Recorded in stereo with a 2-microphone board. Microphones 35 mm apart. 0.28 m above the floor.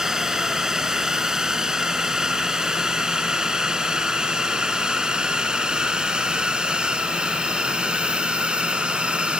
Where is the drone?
15° right (ahead or behind); by 9.4 s 30° right (ahead or behind).